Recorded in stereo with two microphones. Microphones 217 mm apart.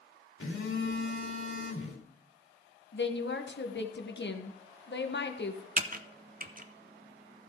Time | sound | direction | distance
0.4 | a phone buzzing | 75° left (ahead or behind) | 2.5 m
2.9 | a woman speaking | 55° left (ahead or behind) | 1.1 m
5.8 | typing on a keyboard | 40° right (ahead or behind) | 0.6 m